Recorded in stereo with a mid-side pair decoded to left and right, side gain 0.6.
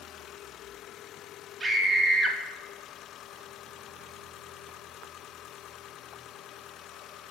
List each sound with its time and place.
1.6 s a scream: 25° right, 4 m